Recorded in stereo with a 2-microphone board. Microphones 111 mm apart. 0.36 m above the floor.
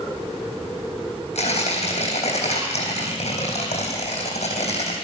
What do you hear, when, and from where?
1.4 s tearing paper: 85° left, 3.5 m